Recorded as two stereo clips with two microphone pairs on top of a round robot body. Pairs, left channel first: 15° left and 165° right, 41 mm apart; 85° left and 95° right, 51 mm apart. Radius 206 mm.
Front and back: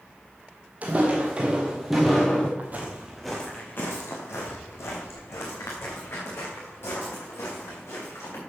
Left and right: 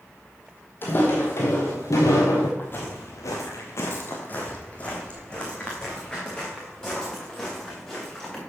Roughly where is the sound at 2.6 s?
Behind left.